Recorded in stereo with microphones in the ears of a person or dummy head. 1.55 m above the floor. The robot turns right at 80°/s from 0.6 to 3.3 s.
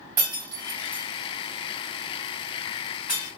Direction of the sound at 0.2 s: 15° right (ahead or behind).